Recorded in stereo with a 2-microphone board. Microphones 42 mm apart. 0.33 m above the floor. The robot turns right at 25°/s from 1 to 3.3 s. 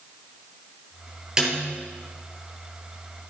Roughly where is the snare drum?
Centre.